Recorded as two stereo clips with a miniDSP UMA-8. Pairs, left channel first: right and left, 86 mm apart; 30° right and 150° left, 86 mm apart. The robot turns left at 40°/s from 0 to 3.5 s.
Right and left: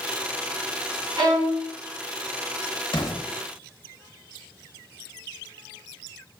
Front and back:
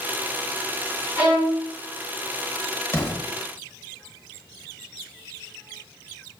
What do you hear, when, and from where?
1.2 s a violin: 95° left, 1.4 m; by 1.6 s 80° left, 1.4 m
2.9 s an explosion: 85° right, 0.9 m; by 3.2 s 100° right, 0.9 m